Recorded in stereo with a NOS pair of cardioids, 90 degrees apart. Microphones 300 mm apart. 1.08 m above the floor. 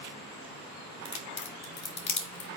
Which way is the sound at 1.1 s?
40° left.